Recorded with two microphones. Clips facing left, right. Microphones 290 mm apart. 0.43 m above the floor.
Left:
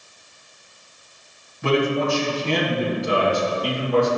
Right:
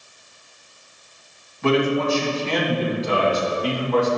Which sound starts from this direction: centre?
A man speaking, at 1.6 s.